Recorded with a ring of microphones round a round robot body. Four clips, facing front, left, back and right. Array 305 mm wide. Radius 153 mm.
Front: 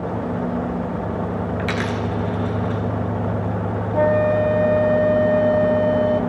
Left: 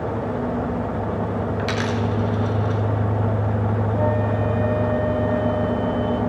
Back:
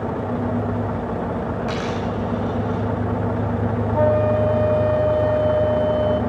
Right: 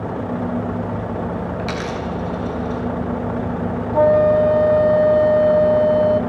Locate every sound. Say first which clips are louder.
1.6 s a dropped coin: left 1 dB, front 1 dB; 10° left, 3.5 m
3.9 s a flute: right 12 dB, front 1 dB; 65° right, 1.3 m